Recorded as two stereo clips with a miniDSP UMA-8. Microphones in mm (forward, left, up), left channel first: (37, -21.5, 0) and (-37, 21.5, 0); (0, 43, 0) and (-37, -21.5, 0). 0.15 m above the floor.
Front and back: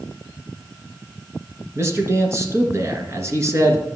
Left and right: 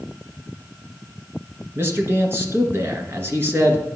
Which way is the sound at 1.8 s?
165° right.